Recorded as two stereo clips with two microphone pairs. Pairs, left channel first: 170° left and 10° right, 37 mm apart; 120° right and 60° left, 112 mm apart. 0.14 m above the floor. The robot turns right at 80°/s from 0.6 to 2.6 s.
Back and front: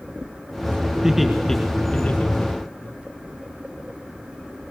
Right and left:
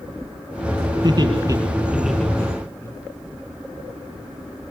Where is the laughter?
60° left, 1.9 m; by 2.9 s 175° right, 1.9 m.